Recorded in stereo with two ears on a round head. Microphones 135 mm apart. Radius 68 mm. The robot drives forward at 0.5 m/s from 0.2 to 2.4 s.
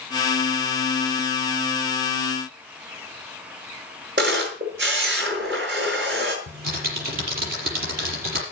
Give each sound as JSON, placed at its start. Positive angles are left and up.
{"t": 4.2, "sound": "a camera shutter", "side_deg": -80, "distance_m": 5.0}
{"t": 6.5, "sound": "typing on a keyboard", "side_deg": -70, "distance_m": 6.0}